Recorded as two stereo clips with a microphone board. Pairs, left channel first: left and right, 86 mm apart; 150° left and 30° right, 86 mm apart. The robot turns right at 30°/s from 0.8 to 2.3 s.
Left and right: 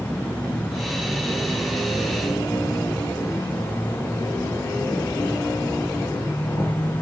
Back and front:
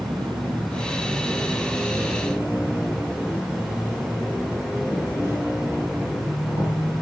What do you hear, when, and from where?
0.0 s an insect: 5° right, 4.5 m; by 7.0 s 40° left, 4.5 m